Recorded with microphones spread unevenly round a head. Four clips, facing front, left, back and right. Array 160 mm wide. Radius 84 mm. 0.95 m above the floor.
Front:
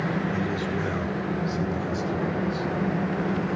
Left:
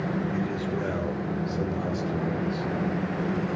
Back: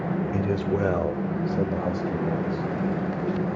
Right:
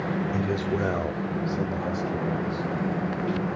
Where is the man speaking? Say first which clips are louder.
Right 2 dB, back 3 dB; 150° right, 3 m; by 2.7 s 175° left, 5 m.